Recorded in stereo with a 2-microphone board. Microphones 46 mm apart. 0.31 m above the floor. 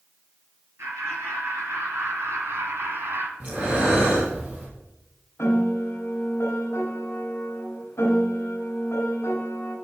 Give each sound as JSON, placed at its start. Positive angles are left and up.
{"t": 0.8, "sound": "laughter", "side_deg": -70, "distance_m": 5.5}
{"t": 3.4, "sound": "breathing", "side_deg": -35, "distance_m": 5.0}
{"t": 5.4, "sound": "a piano", "side_deg": 70, "distance_m": 3.0}